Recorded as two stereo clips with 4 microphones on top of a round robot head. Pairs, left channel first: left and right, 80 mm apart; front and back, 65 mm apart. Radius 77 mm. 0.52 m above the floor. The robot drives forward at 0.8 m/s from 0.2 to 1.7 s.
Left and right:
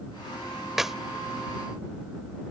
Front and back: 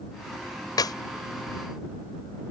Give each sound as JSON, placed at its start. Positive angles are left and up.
{"t": 0.8, "sound": "a clap", "azimuth_deg": -5}